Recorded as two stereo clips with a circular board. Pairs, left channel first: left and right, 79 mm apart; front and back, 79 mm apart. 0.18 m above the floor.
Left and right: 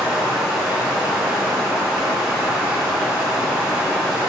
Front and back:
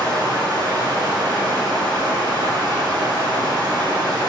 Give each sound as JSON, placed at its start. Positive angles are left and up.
{"t": 0.0, "sound": "running water", "azimuth_deg": -170, "distance_m": 1.0}